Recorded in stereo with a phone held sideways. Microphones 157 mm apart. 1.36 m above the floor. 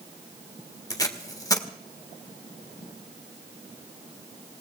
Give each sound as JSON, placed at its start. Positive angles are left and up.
{"t": 0.9, "sound": "tape being pulled", "side_deg": 25, "distance_m": 1.7}